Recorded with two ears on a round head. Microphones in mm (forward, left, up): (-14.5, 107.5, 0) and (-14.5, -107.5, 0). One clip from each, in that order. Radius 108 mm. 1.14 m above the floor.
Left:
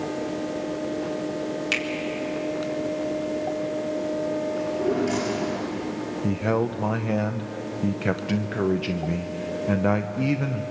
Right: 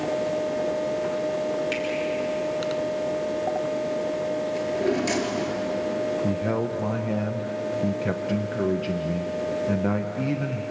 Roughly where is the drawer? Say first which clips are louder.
Even; right.